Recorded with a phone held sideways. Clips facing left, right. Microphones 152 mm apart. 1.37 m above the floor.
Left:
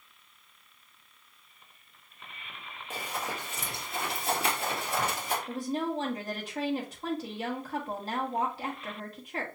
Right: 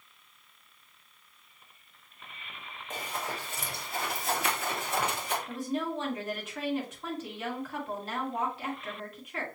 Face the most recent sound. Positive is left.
turn(degrees=35)  # may be behind; listen again after turning